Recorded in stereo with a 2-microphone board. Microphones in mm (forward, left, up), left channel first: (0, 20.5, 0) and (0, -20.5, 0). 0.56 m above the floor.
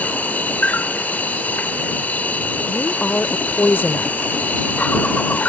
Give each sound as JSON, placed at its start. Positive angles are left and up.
{"t": 0.0, "sound": "an insect", "side_deg": 40}
{"t": 2.7, "sound": "a woman speaking", "side_deg": 55}